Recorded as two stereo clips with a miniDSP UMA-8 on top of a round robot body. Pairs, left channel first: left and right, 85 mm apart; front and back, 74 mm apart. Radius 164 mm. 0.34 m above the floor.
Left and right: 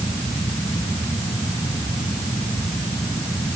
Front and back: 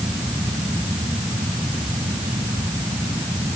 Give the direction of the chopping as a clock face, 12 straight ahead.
I don't hear chopping.